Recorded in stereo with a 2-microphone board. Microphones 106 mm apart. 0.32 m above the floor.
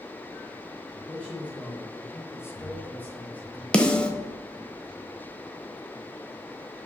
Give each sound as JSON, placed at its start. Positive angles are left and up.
{"t": 1.1, "sound": "a man speaking", "side_deg": 15, "distance_m": 1.3}
{"t": 3.7, "sound": "a snare drum", "side_deg": 10, "distance_m": 0.8}